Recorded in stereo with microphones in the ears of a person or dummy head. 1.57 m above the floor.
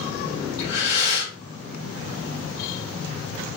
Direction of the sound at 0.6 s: 60° left (ahead or behind).